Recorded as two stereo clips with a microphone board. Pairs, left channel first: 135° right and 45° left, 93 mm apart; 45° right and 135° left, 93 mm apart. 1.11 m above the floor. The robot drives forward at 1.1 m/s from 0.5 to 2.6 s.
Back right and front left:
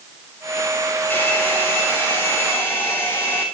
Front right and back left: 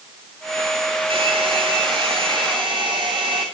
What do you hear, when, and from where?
1.1 s a hair dryer: 150° left, 7.5 m; by 3.5 s 155° left, 9 m